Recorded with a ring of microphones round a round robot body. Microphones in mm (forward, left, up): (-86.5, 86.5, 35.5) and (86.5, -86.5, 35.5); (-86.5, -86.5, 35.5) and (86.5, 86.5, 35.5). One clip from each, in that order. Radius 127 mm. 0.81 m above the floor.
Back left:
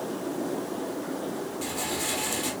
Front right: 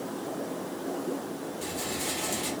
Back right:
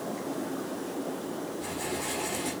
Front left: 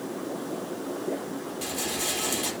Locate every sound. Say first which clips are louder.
1.6 s a rattle: back left 2 dB, front left 5 dB; 45° left, 5 m